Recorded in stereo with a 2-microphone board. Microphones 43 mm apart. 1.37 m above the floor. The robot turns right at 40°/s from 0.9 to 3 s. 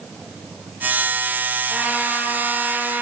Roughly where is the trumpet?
Behind right.